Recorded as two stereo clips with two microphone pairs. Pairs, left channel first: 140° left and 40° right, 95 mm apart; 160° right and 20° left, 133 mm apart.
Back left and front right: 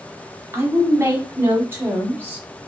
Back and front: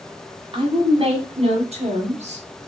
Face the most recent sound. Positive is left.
turn(degrees=25)